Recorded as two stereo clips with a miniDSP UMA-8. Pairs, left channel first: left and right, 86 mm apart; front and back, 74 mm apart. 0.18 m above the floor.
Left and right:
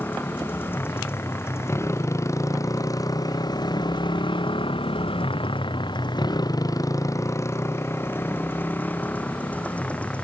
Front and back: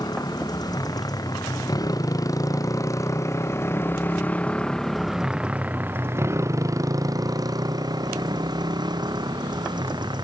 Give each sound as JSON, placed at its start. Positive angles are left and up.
{"t": 0.0, "sound": "a motorcycle", "azimuth_deg": 25}